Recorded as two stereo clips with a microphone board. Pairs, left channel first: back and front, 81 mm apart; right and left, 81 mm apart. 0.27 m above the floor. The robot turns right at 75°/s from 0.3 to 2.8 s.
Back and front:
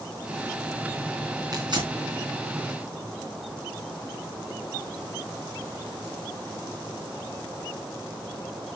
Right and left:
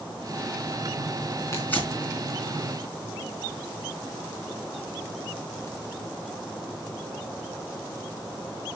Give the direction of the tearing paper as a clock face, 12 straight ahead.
1 o'clock.